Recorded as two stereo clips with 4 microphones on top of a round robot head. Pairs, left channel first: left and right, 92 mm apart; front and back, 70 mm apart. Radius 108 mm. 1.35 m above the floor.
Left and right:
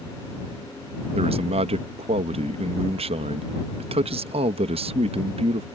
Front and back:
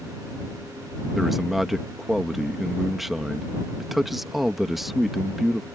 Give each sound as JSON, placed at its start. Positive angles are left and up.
{"t": 1.1, "sound": "a man speaking", "azimuth_deg": -90}